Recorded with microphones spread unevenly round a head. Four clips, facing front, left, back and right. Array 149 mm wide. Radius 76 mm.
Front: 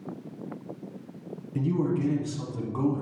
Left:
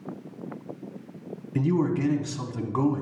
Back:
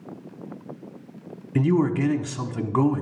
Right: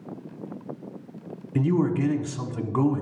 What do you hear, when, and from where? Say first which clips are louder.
1.6 s a man speaking: right 1 dB, back 6 dB; straight behind, 1.0 m